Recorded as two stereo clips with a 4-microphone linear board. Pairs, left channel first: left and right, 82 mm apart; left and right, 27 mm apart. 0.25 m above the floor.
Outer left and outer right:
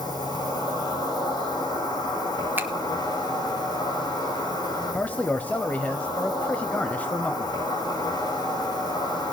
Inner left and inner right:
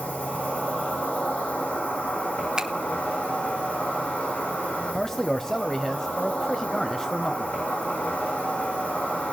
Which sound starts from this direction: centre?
A man speaking, at 4.9 s.